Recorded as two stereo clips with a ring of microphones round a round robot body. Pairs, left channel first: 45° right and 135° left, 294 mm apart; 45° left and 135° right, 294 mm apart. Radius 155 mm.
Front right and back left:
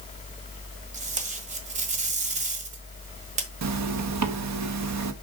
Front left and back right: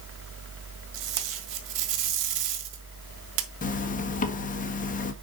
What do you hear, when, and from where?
0.9 s tape being pulled: 160° right, 1.4 m
3.6 s a zipper: 105° left, 1.3 m